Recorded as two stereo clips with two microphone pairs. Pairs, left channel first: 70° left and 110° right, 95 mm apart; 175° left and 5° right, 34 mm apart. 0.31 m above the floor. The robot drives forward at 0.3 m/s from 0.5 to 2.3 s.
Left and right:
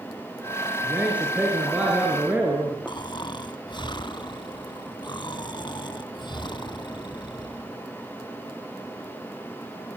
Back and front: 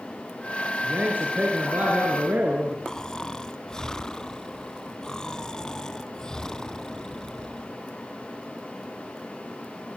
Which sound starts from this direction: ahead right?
A man speaking, at 0.8 s.